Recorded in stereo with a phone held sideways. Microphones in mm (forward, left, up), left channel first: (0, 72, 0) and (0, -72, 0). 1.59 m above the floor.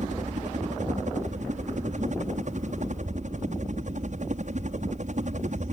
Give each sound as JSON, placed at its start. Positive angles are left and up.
{"t": 0.0, "sound": "a helicopter", "side_deg": -60}